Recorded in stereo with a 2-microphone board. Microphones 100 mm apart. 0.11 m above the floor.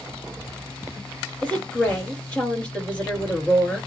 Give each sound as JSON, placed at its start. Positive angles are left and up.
{"t": 1.4, "sound": "a woman speaking", "side_deg": 15, "distance_m": 2.0}